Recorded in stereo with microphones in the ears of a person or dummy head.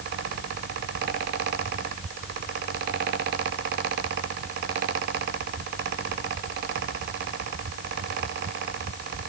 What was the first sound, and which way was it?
Only background noise.